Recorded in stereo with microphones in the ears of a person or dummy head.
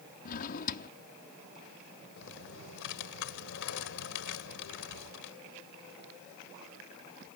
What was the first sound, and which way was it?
A drawer, 50° left (ahead or behind).